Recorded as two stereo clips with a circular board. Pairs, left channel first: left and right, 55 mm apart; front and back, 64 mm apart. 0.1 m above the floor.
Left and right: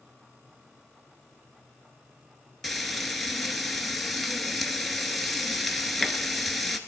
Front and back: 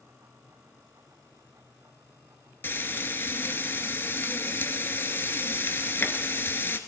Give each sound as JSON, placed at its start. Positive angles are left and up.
{"t": 2.6, "sound": "frying", "azimuth_deg": 0, "distance_m": 0.8}